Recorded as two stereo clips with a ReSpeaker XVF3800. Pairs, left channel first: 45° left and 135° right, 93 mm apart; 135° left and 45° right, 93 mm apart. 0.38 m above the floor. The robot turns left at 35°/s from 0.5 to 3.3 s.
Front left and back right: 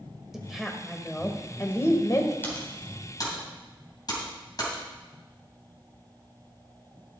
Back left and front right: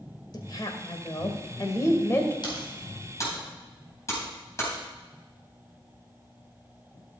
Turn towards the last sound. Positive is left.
turn(degrees=80)